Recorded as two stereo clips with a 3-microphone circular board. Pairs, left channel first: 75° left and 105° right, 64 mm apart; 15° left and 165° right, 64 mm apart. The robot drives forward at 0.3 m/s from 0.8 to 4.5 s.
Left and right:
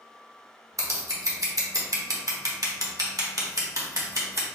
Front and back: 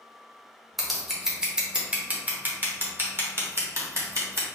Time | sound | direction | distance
0.8 | scissors | 75° right | 1.0 m